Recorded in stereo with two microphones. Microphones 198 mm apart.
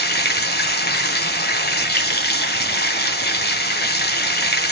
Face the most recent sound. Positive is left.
turn(degrees=55)  # may be behind; listen again after turning